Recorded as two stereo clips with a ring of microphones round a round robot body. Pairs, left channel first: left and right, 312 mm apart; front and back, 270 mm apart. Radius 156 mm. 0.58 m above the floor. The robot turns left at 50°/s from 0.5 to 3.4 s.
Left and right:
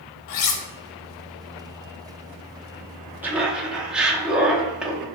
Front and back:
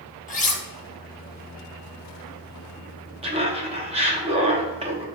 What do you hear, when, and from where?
0.3 s cutlery clinking: 60° left, 0.8 m; by 0.6 s 55° left, 0.8 m
3.2 s laughter: 165° right, 0.7 m; by 5.1 s 170° right, 0.7 m